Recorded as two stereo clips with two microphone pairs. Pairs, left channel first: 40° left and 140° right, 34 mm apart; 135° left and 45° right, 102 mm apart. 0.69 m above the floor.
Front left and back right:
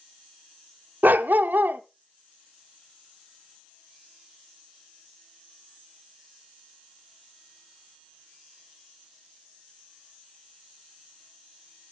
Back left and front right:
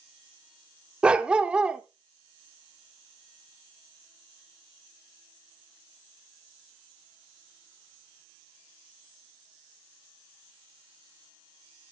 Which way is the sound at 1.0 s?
125° right.